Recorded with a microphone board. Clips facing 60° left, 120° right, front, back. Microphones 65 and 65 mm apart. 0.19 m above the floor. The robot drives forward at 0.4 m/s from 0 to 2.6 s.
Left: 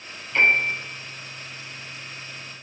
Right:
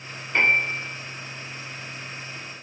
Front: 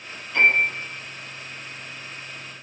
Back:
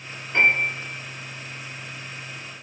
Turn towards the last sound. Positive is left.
turn(degrees=-155)